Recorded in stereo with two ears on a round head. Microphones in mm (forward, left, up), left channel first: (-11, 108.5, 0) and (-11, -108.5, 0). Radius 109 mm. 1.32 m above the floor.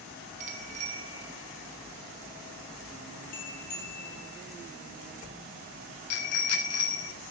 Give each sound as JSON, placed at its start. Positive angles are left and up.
{"t": 0.4, "sound": "a bicycle bell", "side_deg": -35, "distance_m": 3.5}